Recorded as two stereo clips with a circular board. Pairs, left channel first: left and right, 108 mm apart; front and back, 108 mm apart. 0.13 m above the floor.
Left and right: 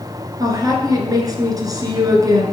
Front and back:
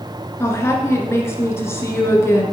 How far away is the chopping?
No chopping in this recording.